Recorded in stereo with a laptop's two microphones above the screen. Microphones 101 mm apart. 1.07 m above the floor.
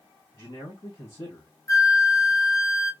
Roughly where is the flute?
Left.